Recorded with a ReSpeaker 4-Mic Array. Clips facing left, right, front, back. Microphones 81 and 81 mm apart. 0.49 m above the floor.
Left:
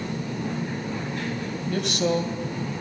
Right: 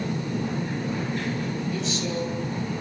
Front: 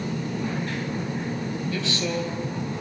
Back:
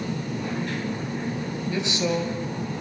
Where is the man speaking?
110° left, 3.5 m.